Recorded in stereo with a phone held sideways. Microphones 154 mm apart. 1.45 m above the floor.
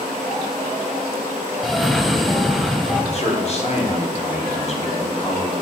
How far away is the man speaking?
About 1.3 m.